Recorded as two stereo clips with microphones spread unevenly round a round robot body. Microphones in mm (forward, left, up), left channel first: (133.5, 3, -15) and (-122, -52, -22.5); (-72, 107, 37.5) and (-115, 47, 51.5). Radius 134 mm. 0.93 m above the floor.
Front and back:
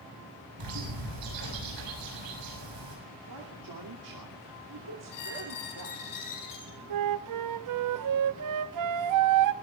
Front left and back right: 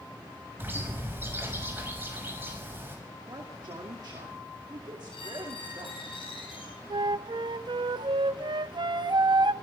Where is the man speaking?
155° right, 2.5 m.